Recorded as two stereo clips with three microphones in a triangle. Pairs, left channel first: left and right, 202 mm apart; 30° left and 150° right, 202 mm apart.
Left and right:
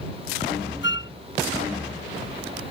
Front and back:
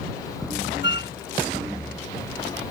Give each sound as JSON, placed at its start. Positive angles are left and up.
{"t": 0.8, "sound": "a flute", "azimuth_deg": 65}